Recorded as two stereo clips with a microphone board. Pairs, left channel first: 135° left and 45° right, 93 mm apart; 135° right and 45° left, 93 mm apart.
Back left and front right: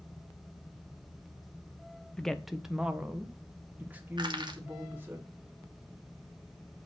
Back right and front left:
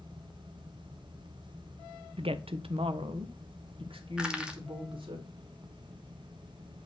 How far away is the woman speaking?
About 0.6 m.